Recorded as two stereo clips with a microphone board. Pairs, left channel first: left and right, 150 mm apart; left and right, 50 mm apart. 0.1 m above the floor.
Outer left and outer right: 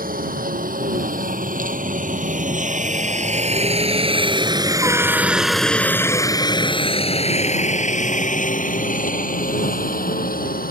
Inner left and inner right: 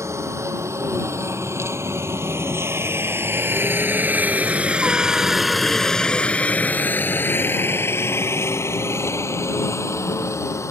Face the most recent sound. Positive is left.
turn(degrees=70)  # may be behind; listen again after turning